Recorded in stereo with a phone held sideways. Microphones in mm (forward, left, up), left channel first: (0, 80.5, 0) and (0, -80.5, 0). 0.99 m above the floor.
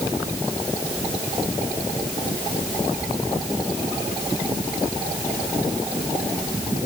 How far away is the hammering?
I don't hear hammering.